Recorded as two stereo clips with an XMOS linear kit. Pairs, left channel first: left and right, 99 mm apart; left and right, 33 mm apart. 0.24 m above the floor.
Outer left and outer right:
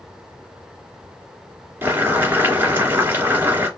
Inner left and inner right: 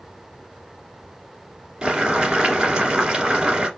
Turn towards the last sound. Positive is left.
turn(degrees=-25)  # may be behind; listen again after turning